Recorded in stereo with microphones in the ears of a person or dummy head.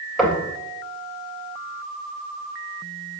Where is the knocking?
Centre (ahead or behind), 4 m.